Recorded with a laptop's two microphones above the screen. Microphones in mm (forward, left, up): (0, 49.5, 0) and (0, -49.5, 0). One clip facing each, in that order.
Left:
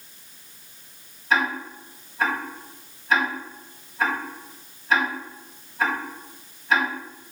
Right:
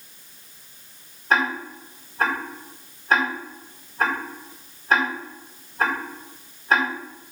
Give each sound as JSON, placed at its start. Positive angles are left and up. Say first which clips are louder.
{"t": 1.3, "sound": "ticking", "louder": "right 1 dB", "side_deg": -40, "distance_m": 4.5}